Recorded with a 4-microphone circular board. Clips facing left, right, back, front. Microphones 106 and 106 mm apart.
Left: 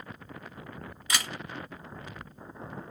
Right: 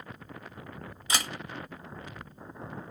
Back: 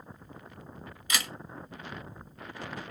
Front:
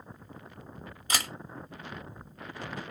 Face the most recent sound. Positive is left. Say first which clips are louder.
# right 1 dB, front 1 dB
turn(degrees=-35)